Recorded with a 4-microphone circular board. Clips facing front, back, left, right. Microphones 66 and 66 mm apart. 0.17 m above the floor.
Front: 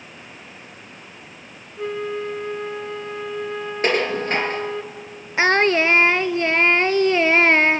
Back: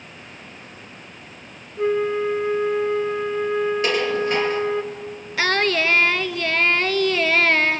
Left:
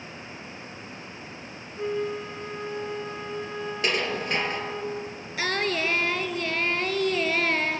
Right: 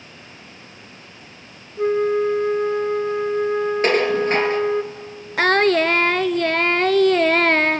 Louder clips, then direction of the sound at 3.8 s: Even, right 8 dB; 45° right.